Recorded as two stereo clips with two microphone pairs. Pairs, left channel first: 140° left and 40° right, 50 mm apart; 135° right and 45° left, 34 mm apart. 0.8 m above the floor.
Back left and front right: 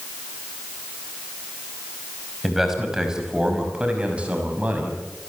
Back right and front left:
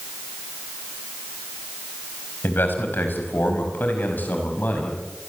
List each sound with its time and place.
2.4 s a man speaking: 125° right, 5.5 m; by 5.3 s 95° right, 6 m